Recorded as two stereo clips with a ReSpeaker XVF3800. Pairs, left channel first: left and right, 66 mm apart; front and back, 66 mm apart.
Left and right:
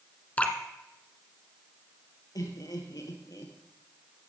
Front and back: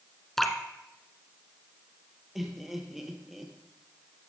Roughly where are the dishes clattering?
I don't hear dishes clattering.